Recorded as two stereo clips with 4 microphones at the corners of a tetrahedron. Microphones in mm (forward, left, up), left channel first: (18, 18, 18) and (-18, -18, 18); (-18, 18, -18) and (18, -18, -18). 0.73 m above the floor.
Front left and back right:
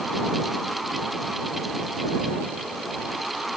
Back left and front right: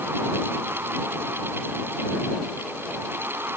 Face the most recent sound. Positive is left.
No sound to turn to.